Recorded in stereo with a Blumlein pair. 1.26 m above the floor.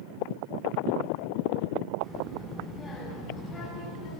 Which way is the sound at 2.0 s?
15° right.